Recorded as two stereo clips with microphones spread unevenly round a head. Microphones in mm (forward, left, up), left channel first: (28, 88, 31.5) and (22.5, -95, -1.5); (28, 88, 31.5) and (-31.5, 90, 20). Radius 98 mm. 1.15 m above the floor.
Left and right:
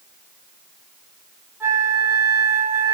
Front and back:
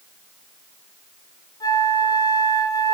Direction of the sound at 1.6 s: 15° right.